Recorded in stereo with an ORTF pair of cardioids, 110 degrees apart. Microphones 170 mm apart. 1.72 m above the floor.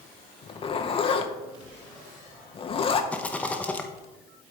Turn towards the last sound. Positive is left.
turn(degrees=10)